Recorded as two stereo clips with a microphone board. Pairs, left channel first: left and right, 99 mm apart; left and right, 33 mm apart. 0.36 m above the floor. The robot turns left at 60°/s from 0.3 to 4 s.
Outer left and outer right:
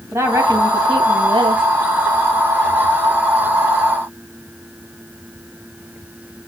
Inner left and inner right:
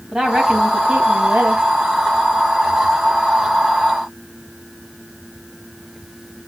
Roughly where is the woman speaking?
Ahead right.